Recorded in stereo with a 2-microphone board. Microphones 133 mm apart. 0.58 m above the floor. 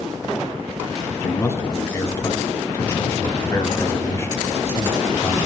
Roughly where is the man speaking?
Centre.